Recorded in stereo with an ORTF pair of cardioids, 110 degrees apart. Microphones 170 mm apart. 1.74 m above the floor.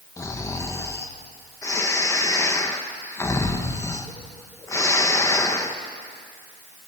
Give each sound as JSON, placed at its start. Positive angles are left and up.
{"t": 0.2, "sound": "snoring", "azimuth_deg": 20, "distance_m": 1.7}